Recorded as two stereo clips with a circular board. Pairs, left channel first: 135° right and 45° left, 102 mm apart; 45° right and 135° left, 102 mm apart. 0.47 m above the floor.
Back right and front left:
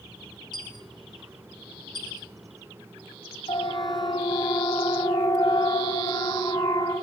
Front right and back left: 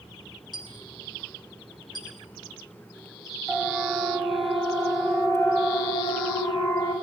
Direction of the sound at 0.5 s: 90° right.